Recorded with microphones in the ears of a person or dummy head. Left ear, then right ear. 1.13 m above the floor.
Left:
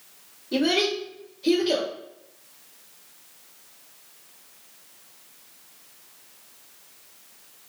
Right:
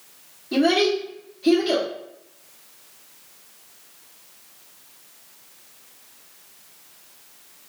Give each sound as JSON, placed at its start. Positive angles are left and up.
{"t": 0.5, "sound": "a child speaking", "side_deg": -45, "distance_m": 1.5}